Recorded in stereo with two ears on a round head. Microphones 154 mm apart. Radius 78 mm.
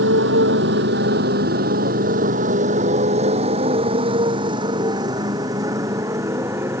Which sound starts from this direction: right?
A motorcycle, at 0.0 s.